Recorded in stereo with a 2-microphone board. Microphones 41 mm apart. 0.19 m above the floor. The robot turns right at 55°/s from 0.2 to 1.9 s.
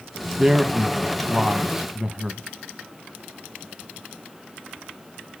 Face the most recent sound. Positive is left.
turn(degrees=-15)  # may be behind; listen again after turning